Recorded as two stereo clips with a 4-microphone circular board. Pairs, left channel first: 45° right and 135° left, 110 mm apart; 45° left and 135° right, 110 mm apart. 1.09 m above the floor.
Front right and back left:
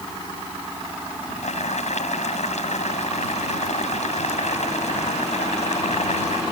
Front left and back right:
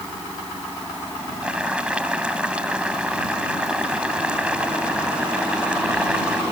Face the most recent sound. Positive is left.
turn(degrees=-55)